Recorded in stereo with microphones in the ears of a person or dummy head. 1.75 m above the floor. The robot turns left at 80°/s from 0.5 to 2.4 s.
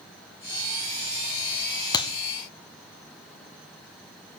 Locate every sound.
1.9 s a clap: 20° left (ahead or behind), 0.8 m; by 2.1 s 35° left (ahead or behind), 0.8 m